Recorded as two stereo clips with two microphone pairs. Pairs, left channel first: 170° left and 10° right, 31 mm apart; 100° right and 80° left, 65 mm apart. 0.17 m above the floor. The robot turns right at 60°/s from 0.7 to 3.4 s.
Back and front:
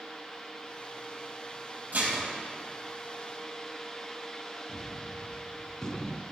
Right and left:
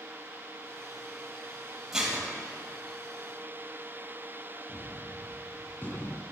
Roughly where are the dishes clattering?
Ahead.